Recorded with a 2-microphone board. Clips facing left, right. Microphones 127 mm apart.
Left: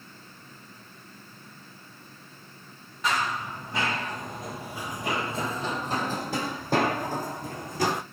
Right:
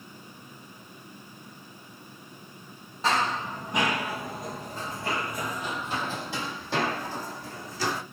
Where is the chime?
I don't hear a chime.